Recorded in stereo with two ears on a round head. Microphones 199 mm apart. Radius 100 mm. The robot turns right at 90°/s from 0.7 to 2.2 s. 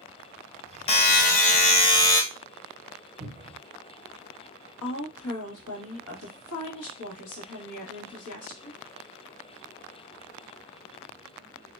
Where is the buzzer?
50° left, 0.7 m; by 2.2 s 165° left, 0.7 m.